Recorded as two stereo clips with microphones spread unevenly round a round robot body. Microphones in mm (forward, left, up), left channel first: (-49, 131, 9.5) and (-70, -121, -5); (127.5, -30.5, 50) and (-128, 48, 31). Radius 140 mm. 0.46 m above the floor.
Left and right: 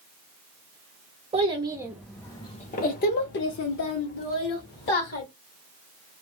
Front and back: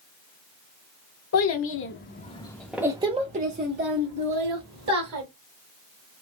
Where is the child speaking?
35° right, 0.8 m; by 5.2 s 125° left, 1.6 m.